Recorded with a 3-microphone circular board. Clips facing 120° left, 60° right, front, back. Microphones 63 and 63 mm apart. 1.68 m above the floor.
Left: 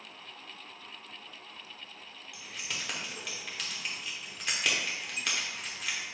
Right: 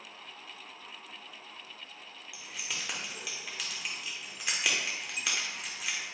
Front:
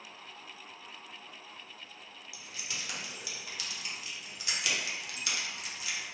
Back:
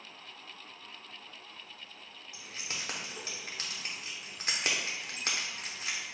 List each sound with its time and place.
2.3 s keys jangling: 145° right, 0.7 m